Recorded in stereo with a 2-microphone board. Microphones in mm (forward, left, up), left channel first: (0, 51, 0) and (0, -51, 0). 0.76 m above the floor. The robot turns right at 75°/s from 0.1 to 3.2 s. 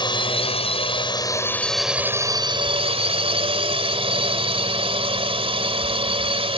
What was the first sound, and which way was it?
A drone, 55° left.